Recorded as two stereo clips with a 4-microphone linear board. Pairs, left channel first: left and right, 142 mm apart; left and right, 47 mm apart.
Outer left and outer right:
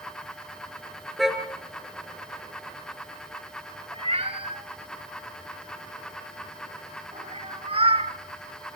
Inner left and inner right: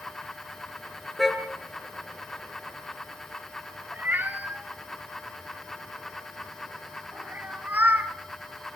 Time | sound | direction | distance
1.2 | a car horn | centre (ahead or behind) | 4 m
3.9 | a cat meowing | 40° right (ahead or behind) | 1.5 m